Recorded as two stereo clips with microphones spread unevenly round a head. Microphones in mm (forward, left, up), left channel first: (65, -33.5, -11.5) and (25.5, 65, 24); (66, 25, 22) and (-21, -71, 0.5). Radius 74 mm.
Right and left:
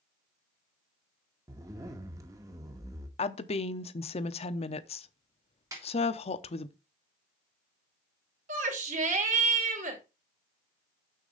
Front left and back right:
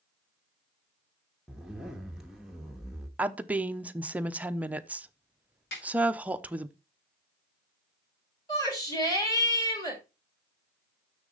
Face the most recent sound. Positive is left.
turn(degrees=115)